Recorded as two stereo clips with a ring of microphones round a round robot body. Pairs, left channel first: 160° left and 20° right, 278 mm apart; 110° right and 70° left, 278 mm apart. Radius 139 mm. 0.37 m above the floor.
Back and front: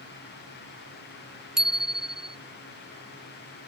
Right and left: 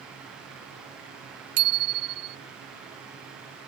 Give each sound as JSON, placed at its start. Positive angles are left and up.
{"t": 1.6, "sound": "a bicycle bell", "azimuth_deg": 65}